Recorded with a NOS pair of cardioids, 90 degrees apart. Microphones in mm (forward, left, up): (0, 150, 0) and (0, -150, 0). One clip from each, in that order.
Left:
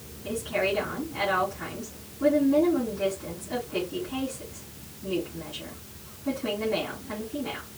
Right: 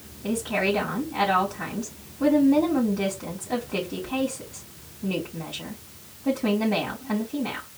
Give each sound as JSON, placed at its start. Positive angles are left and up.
{"t": 0.2, "sound": "a woman speaking", "azimuth_deg": -55, "distance_m": 3.5}